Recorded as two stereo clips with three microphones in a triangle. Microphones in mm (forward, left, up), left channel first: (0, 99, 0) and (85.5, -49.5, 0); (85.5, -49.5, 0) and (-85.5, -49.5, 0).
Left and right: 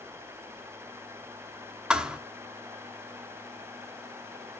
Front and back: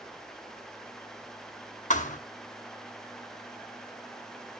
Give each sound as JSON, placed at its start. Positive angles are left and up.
{"t": 1.9, "sound": "a thud", "azimuth_deg": 25, "distance_m": 1.0}